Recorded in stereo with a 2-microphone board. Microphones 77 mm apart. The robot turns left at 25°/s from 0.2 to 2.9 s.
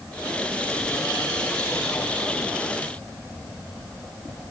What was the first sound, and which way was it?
Only background noise.